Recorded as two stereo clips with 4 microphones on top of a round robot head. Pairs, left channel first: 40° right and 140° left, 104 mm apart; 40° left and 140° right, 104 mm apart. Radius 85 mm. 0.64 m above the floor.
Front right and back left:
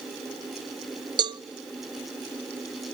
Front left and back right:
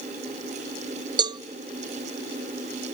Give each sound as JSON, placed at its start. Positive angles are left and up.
{"t": 1.2, "sound": "a cowbell", "azimuth_deg": 180, "distance_m": 0.6}